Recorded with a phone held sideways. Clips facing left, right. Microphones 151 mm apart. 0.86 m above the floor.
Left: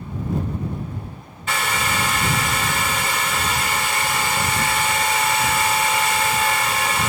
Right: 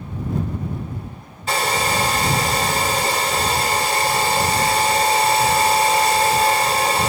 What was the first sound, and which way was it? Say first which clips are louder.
A hair dryer: right 4 dB; 35° right (ahead or behind).